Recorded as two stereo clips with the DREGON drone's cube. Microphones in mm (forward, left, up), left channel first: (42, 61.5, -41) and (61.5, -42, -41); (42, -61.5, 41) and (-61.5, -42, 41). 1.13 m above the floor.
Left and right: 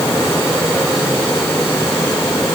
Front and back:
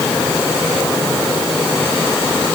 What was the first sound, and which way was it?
Only background noise.